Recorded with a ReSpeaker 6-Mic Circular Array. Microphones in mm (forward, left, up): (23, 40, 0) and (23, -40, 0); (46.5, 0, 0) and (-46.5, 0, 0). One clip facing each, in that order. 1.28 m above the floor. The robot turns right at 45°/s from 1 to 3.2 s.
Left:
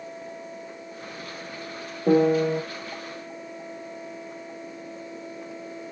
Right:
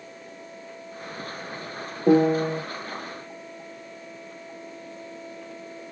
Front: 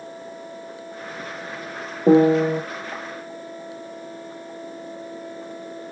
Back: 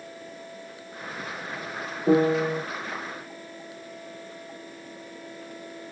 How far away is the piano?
About 0.8 m.